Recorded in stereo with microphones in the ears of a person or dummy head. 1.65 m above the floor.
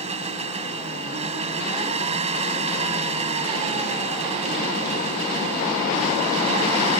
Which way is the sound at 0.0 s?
35° right (ahead or behind).